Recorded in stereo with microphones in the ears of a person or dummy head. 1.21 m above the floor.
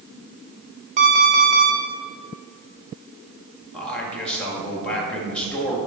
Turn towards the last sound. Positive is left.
turn(degrees=5)  # may be behind; listen again after turning